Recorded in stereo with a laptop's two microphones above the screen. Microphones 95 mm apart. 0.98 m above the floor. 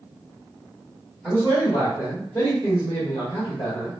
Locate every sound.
1.2 s a man speaking: 10° left (ahead or behind), 1.4 m; by 3.9 s 70° left (ahead or behind), 1.4 m